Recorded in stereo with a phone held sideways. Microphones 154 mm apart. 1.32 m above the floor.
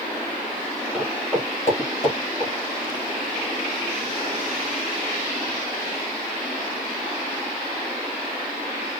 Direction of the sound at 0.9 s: 5° right (ahead or behind).